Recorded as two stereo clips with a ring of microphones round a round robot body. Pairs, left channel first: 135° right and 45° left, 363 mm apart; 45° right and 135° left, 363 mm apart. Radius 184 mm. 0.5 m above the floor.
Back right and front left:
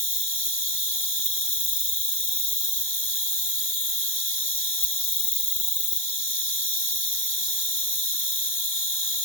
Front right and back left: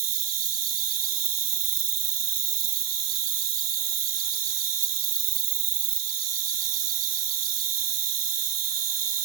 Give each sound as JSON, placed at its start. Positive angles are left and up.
{"t": 0.0, "sound": "an insect", "azimuth_deg": 170, "distance_m": 1.5}